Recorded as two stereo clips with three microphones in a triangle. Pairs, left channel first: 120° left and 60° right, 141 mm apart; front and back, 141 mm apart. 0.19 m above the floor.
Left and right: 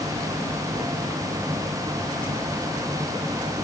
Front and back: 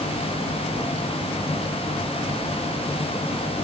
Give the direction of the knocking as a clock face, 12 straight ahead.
I don't hear knocking.